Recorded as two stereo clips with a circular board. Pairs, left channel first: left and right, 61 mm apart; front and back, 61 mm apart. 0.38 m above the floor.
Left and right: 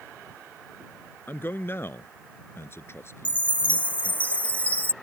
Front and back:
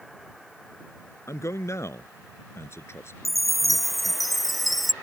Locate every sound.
1.3 s a man speaking: 35° left; by 4.2 s 50° left
3.2 s a chime: 85° left